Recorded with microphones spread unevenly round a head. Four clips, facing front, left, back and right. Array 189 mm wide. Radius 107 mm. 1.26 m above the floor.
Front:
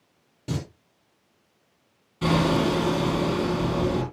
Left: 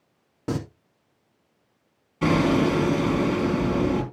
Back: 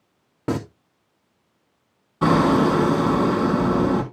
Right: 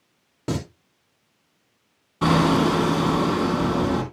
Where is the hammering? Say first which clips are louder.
Right 2 dB, back 5 dB; 145° right, 4 m.